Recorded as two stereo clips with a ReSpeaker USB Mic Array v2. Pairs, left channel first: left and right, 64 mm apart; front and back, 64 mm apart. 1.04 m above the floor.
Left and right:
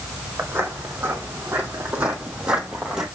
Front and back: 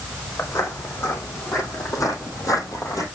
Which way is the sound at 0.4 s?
40° right.